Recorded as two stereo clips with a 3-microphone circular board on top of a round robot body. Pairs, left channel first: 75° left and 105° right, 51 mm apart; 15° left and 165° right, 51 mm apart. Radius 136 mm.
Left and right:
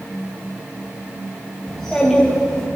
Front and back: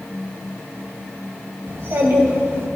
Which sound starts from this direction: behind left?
A child speaking, at 1.7 s.